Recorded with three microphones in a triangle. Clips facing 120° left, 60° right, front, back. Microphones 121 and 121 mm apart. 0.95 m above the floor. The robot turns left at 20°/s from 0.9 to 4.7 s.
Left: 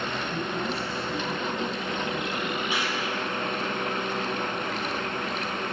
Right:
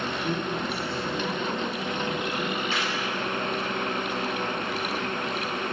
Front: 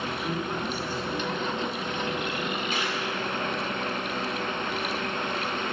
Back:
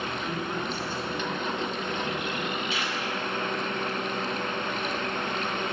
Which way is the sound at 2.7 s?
45° left.